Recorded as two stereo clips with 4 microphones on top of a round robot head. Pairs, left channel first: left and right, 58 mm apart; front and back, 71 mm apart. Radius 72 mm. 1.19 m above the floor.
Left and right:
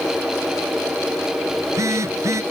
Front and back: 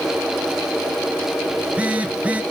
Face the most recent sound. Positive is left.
turn(degrees=-115)